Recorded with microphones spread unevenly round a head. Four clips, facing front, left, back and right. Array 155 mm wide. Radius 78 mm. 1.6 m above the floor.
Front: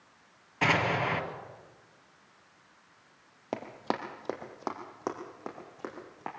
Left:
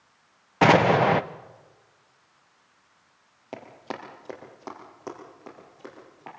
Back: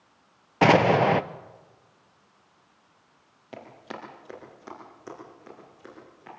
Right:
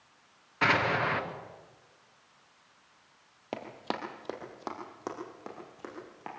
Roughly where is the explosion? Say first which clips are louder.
Left 10 dB, back 10 dB; behind left.